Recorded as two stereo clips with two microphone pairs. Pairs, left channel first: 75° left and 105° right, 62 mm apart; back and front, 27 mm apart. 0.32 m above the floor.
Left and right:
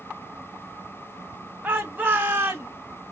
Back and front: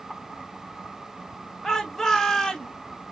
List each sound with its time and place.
1.6 s a shout: 95° right, 1.5 m